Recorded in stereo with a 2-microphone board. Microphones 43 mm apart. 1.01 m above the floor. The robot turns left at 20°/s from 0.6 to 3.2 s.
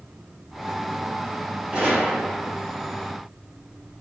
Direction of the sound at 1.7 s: 25° right (ahead or behind).